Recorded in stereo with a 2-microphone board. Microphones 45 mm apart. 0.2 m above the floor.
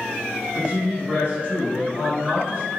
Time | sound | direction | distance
0.6 | a woman speaking | 35° right (ahead or behind) | 1.9 m